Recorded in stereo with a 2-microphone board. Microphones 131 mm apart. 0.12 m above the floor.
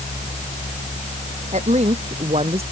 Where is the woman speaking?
60° right (ahead or behind); by 2.6 s 50° right (ahead or behind).